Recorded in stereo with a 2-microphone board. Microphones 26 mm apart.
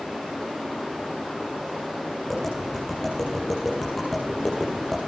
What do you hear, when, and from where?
2.3 s tapping: 10° left (ahead or behind), 6.5 m